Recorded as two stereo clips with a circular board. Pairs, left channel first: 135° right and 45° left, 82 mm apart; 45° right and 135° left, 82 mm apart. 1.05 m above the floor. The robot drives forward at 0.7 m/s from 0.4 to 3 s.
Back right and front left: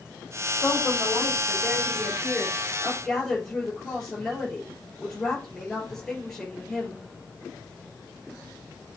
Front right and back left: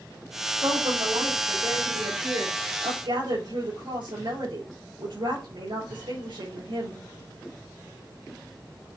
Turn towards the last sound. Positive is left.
turn(degrees=145)